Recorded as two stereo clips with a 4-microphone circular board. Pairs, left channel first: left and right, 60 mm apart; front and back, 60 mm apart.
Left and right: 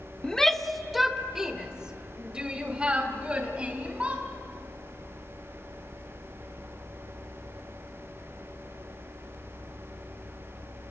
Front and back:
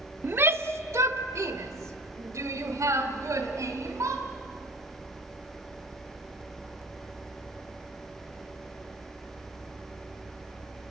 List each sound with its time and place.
0.2 s a shout: 160° left, 0.9 m; by 4.2 s 160° right, 3 m